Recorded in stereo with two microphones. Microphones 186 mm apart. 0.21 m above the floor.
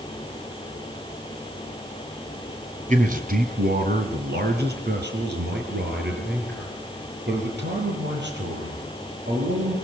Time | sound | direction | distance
2.9 | a man speaking | 45° right (ahead or behind) | 2 m